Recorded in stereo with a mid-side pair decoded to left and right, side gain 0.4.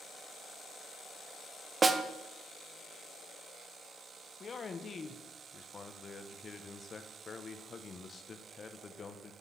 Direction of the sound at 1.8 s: 35° right.